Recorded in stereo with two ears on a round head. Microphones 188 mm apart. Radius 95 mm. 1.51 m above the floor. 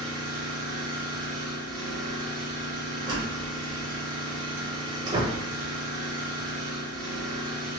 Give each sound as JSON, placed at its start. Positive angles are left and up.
{"t": 0.0, "sound": "an engine running", "side_deg": -80, "distance_m": 1.6}
{"t": 3.0, "sound": "a door slam", "side_deg": -20, "distance_m": 0.7}